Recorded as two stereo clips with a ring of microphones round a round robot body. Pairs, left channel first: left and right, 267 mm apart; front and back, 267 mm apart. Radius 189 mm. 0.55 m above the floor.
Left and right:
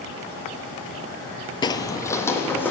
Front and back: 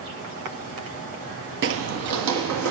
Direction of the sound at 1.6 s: 160° left.